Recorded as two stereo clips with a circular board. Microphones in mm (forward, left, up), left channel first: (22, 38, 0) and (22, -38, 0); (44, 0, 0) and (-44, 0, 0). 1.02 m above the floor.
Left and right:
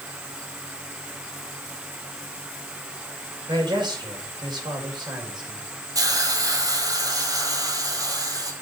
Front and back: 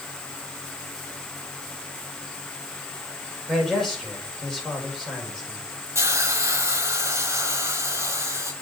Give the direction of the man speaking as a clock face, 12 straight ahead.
3 o'clock.